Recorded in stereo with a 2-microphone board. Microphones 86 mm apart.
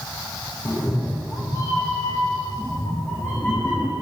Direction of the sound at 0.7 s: 40° left (ahead or behind).